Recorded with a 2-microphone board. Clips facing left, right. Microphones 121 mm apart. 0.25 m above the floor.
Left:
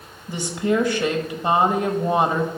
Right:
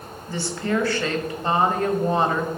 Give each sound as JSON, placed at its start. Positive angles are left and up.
{"t": 0.3, "sound": "a woman speaking", "side_deg": 15, "distance_m": 0.9}